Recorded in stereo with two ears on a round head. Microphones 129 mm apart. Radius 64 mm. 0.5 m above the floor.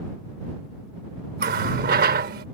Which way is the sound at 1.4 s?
70° right (ahead or behind).